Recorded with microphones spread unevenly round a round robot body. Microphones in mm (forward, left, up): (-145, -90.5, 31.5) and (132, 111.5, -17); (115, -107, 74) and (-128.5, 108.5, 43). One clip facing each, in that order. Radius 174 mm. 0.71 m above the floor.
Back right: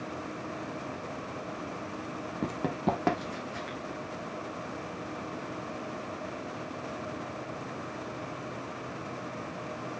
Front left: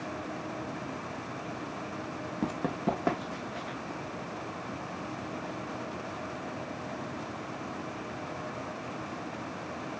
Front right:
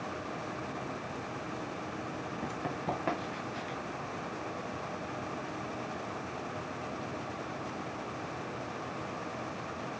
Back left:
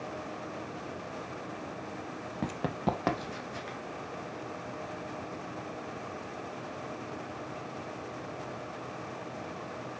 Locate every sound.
2.4 s running footsteps: 120° left, 1.1 m; by 3.8 s 160° left, 2.5 m